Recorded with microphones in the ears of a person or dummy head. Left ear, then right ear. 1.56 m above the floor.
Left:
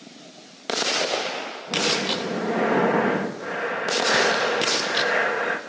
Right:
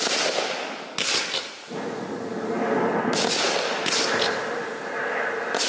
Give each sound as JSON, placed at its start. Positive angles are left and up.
{"t": 1.7, "sound": "breathing", "side_deg": 55, "distance_m": 3.0}